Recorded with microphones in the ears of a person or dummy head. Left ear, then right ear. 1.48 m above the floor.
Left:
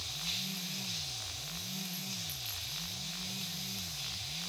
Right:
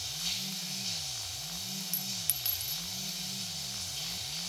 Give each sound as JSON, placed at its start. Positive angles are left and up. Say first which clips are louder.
{"t": 0.0, "sound": "running water", "louder": "right 2 dB", "side_deg": -65, "distance_m": 9.0}
{"t": 1.9, "sound": "a clink", "louder": "right 3 dB", "side_deg": -40, "distance_m": 0.7}